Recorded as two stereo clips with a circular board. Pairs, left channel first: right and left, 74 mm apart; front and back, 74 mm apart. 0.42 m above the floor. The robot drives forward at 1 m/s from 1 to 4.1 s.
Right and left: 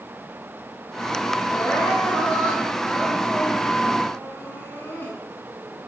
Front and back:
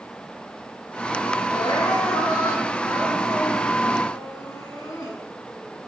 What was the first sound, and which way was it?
Crying, 15° right.